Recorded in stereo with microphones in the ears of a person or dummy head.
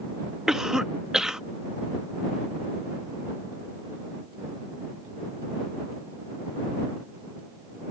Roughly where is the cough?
Centre.